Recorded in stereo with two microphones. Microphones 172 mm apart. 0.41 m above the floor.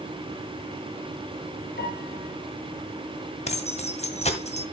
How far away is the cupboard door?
No cupboard door in this recording.